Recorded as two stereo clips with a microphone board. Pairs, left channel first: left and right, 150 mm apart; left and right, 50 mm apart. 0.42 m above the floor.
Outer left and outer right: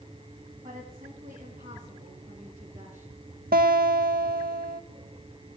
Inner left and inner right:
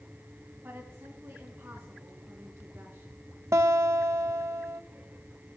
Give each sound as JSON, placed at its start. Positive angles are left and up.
{"t": 0.6, "sound": "a woman speaking", "side_deg": -70, "distance_m": 3.0}
{"t": 3.5, "sound": "a guitar", "side_deg": -80, "distance_m": 0.6}